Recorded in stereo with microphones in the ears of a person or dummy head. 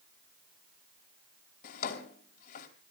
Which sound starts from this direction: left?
A drawer, at 1.6 s.